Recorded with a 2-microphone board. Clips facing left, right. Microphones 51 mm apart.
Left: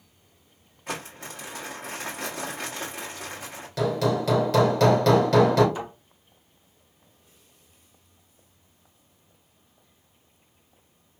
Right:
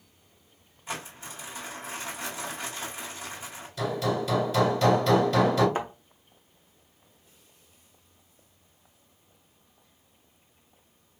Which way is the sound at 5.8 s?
40° right (ahead or behind).